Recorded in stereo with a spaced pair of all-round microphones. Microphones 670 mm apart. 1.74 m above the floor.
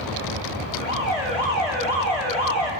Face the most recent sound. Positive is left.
turn(degrees=65)  # may be behind; listen again after turning